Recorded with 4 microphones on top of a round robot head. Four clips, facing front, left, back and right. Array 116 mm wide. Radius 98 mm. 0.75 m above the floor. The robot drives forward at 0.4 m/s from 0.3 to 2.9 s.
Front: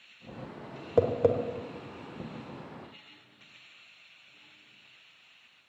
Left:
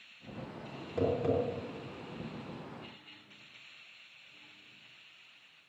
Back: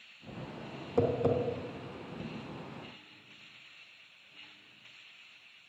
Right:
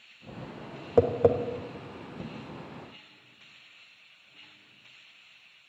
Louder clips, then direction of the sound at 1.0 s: Right 9 dB, front 4 dB; 60° right.